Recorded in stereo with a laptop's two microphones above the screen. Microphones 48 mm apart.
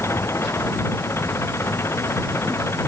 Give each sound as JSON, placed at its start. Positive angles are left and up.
{"t": 0.0, "sound": "an engine running", "side_deg": 65}